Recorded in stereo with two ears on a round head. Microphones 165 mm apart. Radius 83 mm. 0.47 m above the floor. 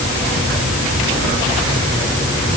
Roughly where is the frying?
I don't hear frying.